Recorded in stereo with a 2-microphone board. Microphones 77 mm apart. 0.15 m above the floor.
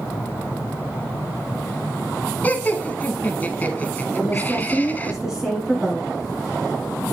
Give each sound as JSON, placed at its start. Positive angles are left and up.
{"t": 2.4, "sound": "laughter", "side_deg": 25, "distance_m": 1.1}
{"t": 4.2, "sound": "a woman speaking", "side_deg": -10, "distance_m": 2.0}